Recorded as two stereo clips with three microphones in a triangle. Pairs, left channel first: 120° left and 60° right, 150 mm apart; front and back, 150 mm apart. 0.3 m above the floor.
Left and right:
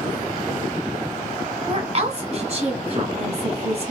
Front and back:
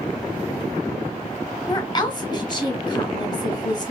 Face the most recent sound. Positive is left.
turn(degrees=-45)